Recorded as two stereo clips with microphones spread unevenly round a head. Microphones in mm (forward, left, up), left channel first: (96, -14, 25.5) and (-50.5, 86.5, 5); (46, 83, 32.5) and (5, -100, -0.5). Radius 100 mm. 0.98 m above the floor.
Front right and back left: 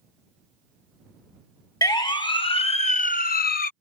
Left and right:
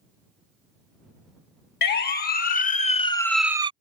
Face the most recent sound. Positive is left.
turn(degrees=-65)